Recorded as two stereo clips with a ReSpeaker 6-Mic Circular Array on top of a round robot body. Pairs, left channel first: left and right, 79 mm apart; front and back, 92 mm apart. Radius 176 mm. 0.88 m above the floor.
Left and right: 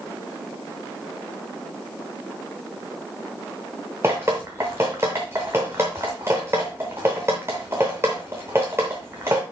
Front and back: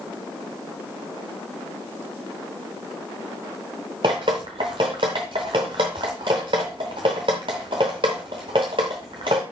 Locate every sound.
4.0 s dripping: 155° right, 0.6 m